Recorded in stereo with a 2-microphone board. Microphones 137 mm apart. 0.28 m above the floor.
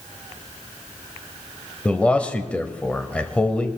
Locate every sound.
1.9 s a man speaking: 10° left (ahead or behind), 1.2 m